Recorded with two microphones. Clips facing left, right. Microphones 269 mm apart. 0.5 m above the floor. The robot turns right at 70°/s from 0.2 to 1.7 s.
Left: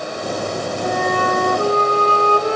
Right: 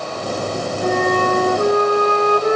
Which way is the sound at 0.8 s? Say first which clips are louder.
Right 4 dB; 75° right.